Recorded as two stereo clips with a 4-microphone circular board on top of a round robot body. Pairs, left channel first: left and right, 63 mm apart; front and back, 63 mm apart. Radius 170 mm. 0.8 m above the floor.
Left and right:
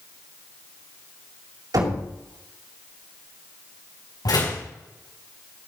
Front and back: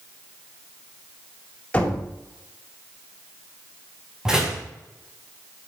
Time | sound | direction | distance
1.7 | knocking | 70° right | 4.5 m
4.2 | a door slam | 100° left | 4.5 m